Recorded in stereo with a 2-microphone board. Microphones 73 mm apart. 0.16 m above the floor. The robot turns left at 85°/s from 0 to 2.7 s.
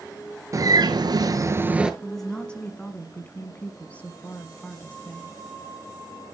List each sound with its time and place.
0.5 s a bird: 50° right, 0.7 m; by 1.9 s 170° right, 0.7 m
2.0 s a woman speaking: 5° right (ahead or behind), 1.1 m; by 5.4 s 15° left (ahead or behind), 1.1 m